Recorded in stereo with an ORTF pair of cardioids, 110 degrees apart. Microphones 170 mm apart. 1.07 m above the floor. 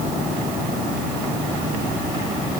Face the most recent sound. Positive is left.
No sound to turn to.